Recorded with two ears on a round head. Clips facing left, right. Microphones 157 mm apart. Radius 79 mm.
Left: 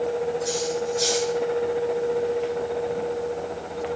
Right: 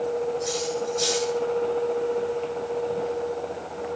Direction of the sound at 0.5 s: 5° left (ahead or behind).